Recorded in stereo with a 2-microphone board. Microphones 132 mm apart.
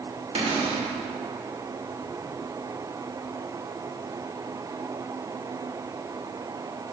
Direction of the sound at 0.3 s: 50° right (ahead or behind).